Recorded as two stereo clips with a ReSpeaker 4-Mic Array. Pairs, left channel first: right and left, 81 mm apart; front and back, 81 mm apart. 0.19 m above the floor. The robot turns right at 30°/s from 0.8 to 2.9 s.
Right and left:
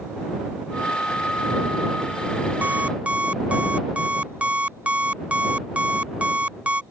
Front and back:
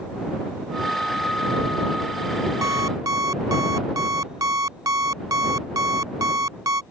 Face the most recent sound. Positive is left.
turn(degrees=160)